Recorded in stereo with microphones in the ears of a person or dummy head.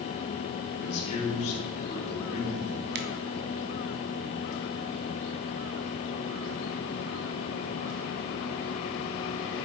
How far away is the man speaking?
About 4.5 m.